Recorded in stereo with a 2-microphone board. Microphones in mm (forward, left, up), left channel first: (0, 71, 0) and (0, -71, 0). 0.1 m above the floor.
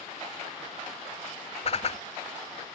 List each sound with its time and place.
1.6 s a whoosh: 50° left (ahead or behind)